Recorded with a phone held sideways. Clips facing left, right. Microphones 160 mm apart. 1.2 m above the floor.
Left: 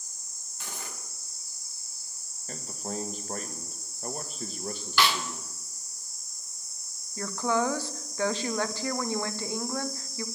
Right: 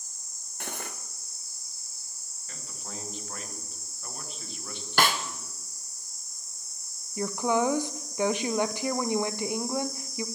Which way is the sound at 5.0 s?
50° right (ahead or behind).